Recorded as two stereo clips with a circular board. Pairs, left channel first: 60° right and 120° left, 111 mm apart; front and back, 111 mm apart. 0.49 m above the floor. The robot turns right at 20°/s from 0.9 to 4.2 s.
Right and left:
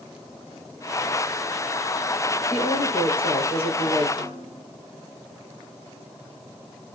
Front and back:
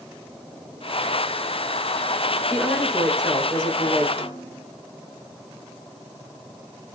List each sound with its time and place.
2.5 s a woman speaking: 100° right, 8 m; by 4.1 s 70° right, 8 m
4.2 s a snare drum: 15° right, 2.5 m